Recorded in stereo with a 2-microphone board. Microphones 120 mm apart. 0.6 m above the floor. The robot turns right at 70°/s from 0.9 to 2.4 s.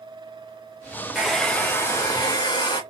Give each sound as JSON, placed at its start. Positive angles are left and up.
{"t": 1.1, "sound": "a hair dryer", "azimuth_deg": -10, "distance_m": 0.6}